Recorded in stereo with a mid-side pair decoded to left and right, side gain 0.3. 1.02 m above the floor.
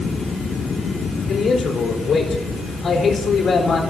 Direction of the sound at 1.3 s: 60° left.